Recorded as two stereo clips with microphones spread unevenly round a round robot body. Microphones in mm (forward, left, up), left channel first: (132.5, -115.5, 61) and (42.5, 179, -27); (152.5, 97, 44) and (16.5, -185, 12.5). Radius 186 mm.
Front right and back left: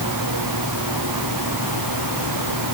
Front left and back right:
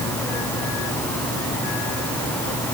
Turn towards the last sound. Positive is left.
No sound to turn to.